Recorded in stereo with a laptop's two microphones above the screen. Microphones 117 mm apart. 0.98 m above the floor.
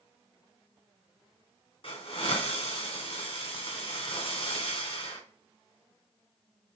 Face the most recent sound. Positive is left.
turn(degrees=60)  # may be behind; listen again after turning